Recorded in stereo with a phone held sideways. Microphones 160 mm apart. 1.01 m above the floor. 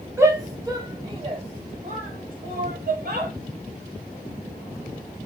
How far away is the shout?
About 2.5 m.